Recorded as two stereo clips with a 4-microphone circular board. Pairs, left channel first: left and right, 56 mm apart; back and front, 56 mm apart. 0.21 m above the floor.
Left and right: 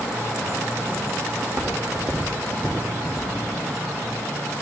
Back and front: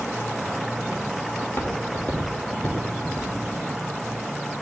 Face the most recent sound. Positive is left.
turn(degrees=-110)